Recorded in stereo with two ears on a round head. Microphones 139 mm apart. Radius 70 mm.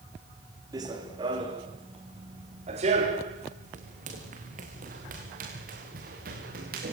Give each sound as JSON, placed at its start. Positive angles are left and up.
{"t": 0.7, "sound": "running footsteps", "side_deg": -25, "distance_m": 4.5}